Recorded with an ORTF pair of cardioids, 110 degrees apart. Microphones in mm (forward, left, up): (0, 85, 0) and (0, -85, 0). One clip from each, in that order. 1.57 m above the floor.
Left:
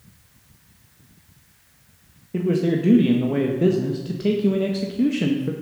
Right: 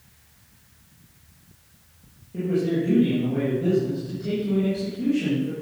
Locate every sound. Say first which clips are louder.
2.3 s a man speaking: left 2 dB; 65° left, 1.7 m